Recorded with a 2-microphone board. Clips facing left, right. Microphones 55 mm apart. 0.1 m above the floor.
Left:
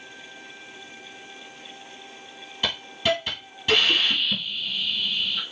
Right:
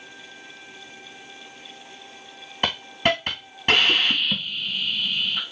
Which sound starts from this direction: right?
A hiss, at 2.6 s.